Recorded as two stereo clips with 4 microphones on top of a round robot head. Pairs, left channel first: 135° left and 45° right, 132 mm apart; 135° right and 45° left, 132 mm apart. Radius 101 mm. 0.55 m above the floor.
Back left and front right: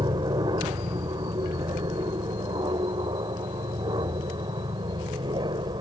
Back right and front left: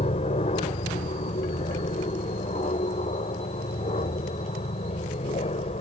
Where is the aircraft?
100° right.